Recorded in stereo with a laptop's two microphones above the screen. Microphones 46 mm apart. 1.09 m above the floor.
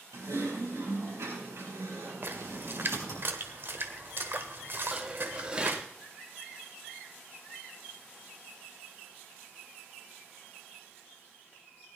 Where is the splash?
50° right (ahead or behind), 1.1 m.